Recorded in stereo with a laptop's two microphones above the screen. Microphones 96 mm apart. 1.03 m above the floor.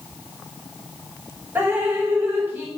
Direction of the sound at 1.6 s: 20° right (ahead or behind).